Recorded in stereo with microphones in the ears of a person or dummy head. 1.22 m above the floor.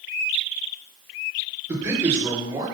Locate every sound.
1.7 s a man speaking: 20° right (ahead or behind), 4.5 m